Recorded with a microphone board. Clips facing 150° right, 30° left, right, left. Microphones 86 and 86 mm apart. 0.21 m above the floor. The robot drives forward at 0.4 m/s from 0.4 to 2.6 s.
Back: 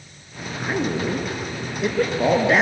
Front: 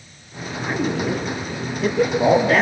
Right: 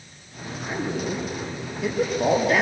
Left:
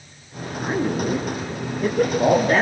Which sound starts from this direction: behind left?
A man speaking, at 0.6 s.